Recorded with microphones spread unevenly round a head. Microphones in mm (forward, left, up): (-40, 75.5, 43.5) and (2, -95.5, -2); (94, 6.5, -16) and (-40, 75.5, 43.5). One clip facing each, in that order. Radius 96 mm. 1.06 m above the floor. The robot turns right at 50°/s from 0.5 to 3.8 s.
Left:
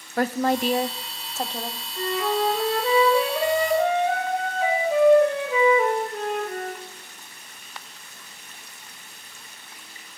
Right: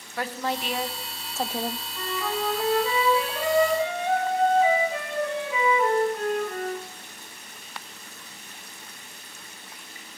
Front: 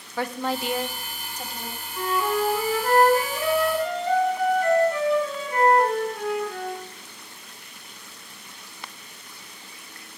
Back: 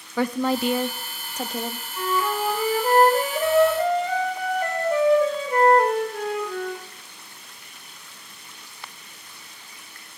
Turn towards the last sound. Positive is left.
turn(degrees=140)